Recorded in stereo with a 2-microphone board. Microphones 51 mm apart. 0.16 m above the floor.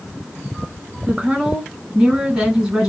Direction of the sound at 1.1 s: 15° right (ahead or behind).